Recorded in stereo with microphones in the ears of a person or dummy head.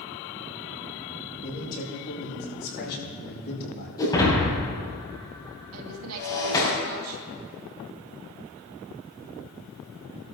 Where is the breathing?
I don't hear breathing.